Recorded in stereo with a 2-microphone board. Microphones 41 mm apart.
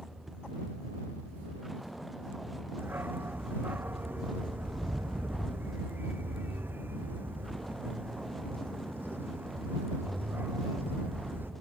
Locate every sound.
0.0 s a vehicle: centre (ahead or behind); by 11.6 s 5° left (ahead or behind)
2.8 s a dog barking: 55° right (ahead or behind)